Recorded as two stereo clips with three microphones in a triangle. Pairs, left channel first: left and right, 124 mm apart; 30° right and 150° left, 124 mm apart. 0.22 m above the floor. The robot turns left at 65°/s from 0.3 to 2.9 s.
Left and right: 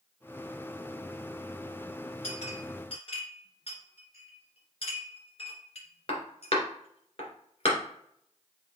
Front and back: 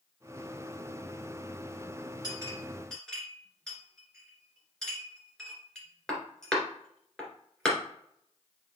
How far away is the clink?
About 2 m.